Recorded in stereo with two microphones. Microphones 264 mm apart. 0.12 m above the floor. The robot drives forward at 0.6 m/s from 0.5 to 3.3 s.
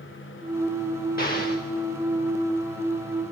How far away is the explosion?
About 2.5 m.